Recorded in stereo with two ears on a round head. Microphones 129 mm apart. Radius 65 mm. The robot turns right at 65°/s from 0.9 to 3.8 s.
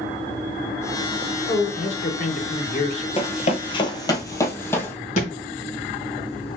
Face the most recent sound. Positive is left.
turn(degrees=55)  # may be behind; listen again after turning